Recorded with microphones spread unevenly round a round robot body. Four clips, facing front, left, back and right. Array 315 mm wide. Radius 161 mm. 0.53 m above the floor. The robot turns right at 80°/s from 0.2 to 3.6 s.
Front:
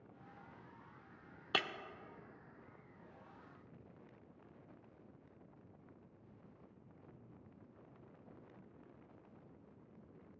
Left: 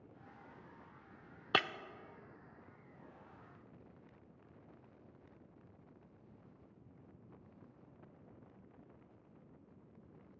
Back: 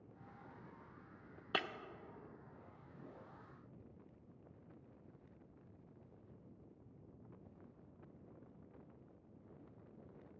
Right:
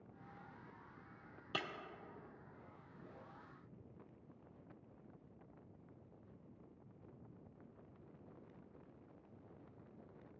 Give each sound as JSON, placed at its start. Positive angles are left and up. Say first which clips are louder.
{"t": 1.5, "sound": "breaking glass", "louder": "left 10 dB, front 1 dB", "azimuth_deg": 70, "distance_m": 0.5}